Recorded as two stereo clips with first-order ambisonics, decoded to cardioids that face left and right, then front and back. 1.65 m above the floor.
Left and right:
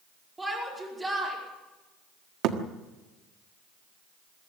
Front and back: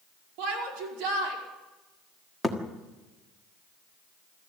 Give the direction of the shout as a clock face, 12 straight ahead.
6 o'clock.